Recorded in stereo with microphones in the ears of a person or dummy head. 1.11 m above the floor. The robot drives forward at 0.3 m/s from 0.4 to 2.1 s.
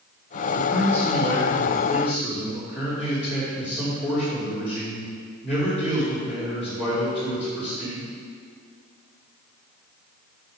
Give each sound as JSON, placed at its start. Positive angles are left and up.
{"t": 0.5, "sound": "a man speaking", "side_deg": 5, "distance_m": 1.9}